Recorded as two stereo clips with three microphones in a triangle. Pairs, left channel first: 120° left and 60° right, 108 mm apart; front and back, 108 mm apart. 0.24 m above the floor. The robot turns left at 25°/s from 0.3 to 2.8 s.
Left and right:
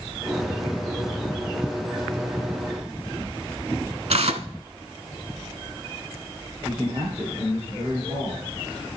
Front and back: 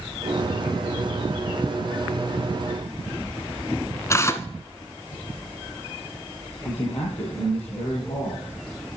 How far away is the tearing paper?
About 0.6 m.